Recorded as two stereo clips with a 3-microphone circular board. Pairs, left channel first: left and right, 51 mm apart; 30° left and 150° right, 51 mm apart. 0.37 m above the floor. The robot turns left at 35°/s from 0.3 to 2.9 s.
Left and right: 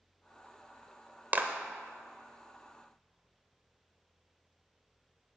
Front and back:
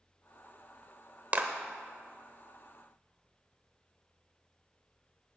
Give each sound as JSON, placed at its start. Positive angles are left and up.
{"t": 1.3, "sound": "a clap", "azimuth_deg": -115, "distance_m": 0.9}